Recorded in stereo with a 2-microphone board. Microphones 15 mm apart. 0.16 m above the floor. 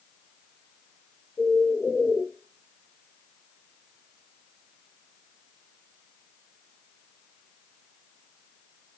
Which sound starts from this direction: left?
A bird, at 1.4 s.